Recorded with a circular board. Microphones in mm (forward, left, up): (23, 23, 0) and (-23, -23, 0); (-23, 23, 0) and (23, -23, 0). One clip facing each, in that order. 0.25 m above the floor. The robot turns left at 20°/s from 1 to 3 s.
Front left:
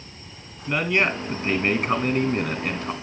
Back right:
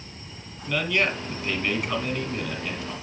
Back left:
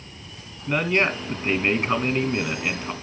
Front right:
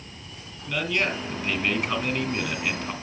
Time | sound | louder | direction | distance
0.7 | a man speaking | front left 2 dB, back left 5 dB | 100° left | 1.7 m